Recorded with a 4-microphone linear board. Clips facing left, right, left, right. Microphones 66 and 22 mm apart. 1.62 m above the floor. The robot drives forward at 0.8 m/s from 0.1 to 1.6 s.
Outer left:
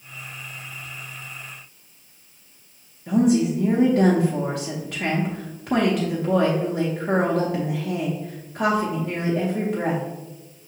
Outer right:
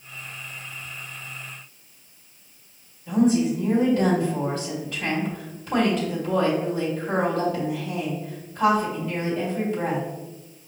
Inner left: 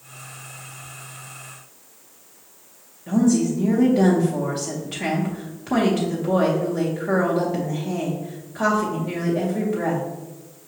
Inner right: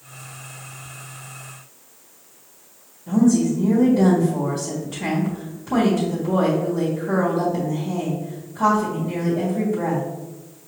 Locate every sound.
3.1 s a woman speaking: 65° left (ahead or behind), 0.8 m